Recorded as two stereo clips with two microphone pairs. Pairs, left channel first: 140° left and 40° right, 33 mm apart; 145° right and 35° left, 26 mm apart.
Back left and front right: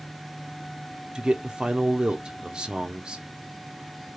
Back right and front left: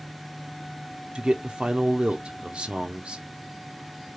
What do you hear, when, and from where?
1.1 s a man speaking: 10° left, 0.7 m